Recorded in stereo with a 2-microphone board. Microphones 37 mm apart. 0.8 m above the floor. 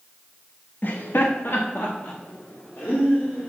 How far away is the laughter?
About 0.8 m.